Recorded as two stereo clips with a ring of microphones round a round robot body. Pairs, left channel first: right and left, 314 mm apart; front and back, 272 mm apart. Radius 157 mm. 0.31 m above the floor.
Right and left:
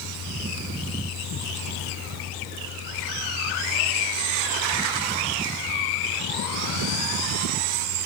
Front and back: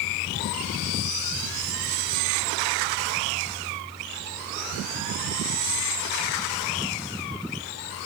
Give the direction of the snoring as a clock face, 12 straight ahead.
No snoring in this recording.